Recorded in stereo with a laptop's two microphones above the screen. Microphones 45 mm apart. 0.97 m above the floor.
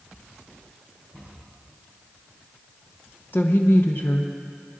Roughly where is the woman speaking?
Left.